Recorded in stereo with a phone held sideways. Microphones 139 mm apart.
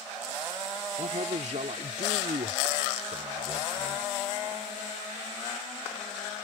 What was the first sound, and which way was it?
A man speaking, 60° right (ahead or behind).